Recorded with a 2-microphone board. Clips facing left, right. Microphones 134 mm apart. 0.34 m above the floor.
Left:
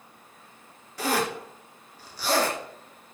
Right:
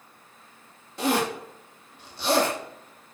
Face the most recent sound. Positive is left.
turn(degrees=-20)  # may be behind; listen again after turning